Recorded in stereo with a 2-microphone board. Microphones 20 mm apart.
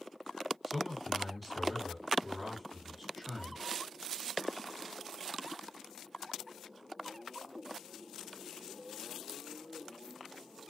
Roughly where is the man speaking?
Centre.